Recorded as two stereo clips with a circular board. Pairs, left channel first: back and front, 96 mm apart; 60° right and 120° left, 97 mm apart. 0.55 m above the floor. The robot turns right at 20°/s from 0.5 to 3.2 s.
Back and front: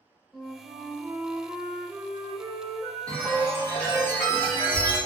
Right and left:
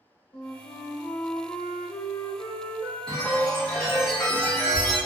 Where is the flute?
90° right, 0.9 m; by 4.1 s 35° right, 0.9 m.